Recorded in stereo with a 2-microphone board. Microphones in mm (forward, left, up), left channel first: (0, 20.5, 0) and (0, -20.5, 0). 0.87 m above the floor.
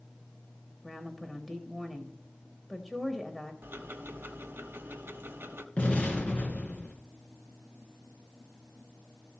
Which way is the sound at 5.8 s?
35° left (ahead or behind).